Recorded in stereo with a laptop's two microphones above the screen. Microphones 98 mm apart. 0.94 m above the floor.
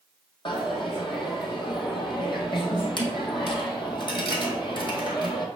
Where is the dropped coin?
55° left (ahead or behind), 1.6 m.